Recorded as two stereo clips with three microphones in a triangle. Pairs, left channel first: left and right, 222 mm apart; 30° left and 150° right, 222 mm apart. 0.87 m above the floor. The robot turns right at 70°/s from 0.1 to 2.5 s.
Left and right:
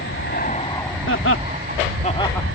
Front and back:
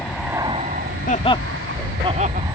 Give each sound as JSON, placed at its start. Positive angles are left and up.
{"t": 0.0, "sound": "an aircraft", "azimuth_deg": 115}
{"t": 1.1, "sound": "laughter", "azimuth_deg": 75}